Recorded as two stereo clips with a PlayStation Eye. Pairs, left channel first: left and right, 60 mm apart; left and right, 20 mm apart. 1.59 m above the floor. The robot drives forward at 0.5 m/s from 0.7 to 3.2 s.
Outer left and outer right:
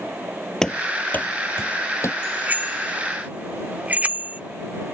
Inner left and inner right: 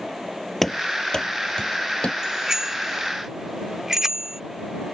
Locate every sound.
0.6 s running footsteps: 10° left (ahead or behind); by 2.1 s 55° left (ahead or behind)
2.2 s a bicycle bell: 30° right (ahead or behind); by 4.4 s 25° right (ahead or behind)